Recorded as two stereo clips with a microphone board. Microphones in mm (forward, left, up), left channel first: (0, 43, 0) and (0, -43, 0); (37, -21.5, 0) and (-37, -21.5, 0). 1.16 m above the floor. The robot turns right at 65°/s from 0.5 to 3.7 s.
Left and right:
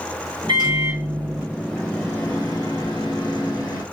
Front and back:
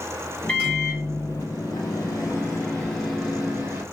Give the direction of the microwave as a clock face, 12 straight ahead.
2 o'clock.